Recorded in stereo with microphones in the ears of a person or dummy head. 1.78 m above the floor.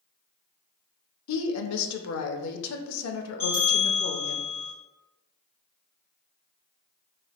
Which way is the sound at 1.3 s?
80° left.